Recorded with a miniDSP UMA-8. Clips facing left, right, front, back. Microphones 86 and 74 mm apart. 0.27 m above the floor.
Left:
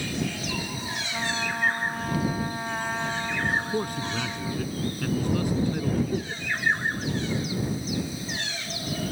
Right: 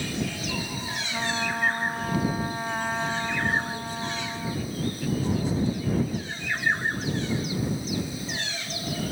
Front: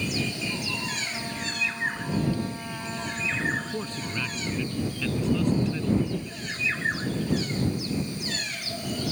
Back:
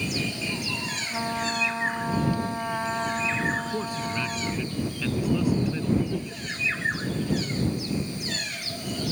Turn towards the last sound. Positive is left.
turn(degrees=115)